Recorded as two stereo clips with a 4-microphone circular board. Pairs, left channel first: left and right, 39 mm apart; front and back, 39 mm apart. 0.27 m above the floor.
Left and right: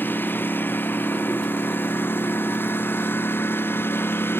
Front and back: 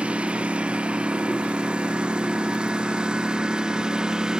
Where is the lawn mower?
120° left; by 4.4 s 110° left.